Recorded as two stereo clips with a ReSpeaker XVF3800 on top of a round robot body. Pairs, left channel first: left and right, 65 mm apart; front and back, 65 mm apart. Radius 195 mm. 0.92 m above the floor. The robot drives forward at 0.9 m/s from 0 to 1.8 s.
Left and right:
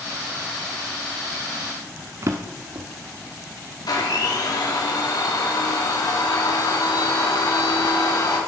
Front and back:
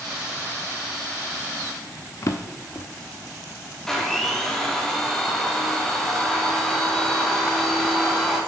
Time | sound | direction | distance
2.2 | a drawer | 45° right | 0.9 m
3.9 | a blender | 80° left | 3 m